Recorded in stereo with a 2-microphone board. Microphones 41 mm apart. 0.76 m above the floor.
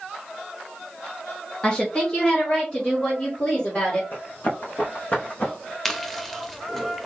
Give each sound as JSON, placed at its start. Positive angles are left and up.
{"t": 1.6, "sound": "a woman speaking", "side_deg": 20, "distance_m": 0.9}
{"t": 4.1, "sound": "running footsteps", "side_deg": 50, "distance_m": 1.9}
{"t": 5.8, "sound": "chewing", "side_deg": 5, "distance_m": 0.6}